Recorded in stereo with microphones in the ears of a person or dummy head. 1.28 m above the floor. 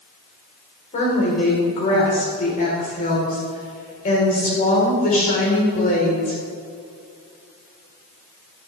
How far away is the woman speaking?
About 4.5 m.